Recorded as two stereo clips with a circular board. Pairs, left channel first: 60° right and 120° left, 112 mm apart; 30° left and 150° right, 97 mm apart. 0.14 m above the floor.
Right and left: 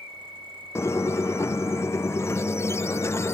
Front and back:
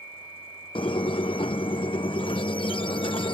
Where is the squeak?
5° left.